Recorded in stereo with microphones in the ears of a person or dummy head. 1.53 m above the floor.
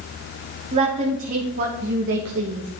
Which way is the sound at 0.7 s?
30° right (ahead or behind).